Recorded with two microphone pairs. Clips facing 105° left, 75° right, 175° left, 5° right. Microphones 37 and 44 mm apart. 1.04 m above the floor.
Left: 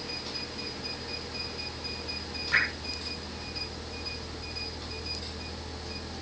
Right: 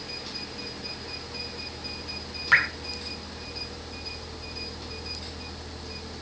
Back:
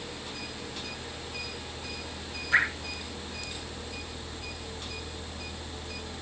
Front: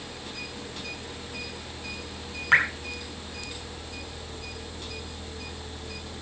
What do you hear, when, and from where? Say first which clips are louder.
2.5 s dripping: right 5 dB, front 4 dB; 40° right, 6 m